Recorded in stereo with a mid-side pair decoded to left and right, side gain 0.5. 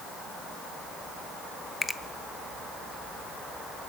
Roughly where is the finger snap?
Ahead.